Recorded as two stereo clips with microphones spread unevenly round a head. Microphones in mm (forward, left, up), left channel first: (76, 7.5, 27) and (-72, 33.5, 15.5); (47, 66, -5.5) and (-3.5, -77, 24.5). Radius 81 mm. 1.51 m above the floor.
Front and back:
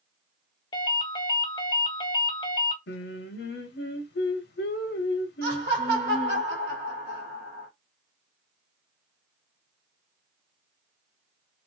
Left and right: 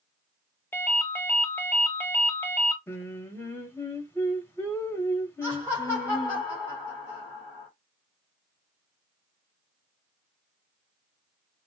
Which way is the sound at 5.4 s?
150° left.